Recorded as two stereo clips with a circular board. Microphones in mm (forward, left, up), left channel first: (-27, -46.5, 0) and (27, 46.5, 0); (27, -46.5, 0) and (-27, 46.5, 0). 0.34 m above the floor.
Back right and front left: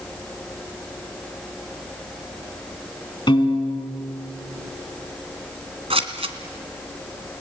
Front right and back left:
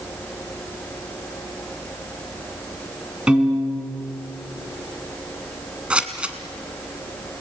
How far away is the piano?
About 3.5 m.